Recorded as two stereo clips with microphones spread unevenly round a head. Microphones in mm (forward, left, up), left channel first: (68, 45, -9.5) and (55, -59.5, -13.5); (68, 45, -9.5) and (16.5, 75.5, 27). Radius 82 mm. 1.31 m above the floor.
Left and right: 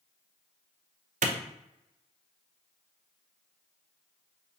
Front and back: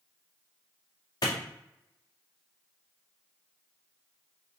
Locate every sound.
1.2 s a clap: 95° right, 0.7 m